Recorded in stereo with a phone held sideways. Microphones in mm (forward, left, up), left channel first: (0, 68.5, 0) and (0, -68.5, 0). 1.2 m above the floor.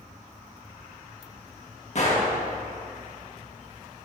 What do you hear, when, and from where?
1.9 s a gunshot: 50° left (ahead or behind), 1.6 m